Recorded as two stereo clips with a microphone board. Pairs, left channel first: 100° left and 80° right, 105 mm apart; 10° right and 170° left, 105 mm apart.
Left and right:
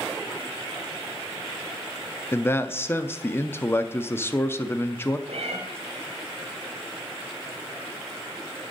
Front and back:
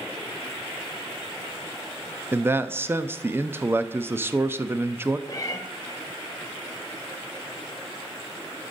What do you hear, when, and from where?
2.3 s a man speaking: 130° left, 0.5 m
5.3 s a cat meowing: 70° right, 1.2 m